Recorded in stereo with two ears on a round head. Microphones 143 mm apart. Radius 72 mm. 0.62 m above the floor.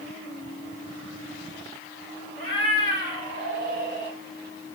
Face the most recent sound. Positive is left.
turn(degrees=25)  # may be behind; listen again after turning